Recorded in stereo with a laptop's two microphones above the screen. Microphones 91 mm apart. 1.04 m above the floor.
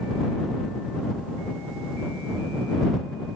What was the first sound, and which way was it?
Only background noise.